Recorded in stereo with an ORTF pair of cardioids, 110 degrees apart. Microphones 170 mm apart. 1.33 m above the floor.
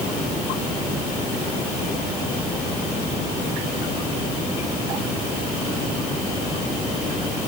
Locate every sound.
Only background noise.